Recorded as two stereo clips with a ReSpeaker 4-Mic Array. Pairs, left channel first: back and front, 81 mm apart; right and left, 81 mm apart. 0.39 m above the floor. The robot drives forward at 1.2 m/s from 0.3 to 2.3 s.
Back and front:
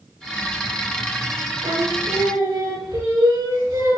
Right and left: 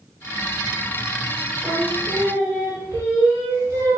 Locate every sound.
1.6 s singing: 35° left, 8 m; by 4.0 s 40° left, 7 m